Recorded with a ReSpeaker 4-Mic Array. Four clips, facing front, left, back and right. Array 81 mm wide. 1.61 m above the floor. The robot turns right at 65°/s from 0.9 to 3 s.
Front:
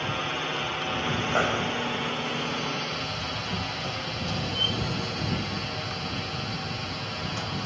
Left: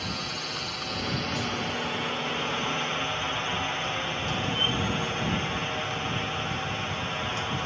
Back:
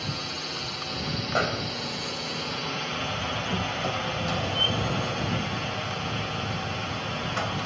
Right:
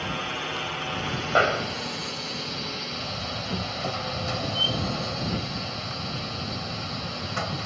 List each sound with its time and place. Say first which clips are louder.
0.0 s a drone: right 4 dB, front 5 dB; 35° right; by 7.7 s 105° left
1.4 s a snare drum: right 8 dB, front 1 dB; 95° right; by 2.0 s 50° right
2.9 s a door slam: left 3 dB, back 2 dB; 140° right; by 7.7 s 135° right